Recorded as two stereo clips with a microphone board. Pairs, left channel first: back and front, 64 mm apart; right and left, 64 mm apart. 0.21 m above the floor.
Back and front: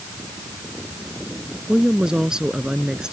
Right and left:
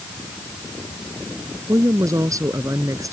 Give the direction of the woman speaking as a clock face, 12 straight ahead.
9 o'clock.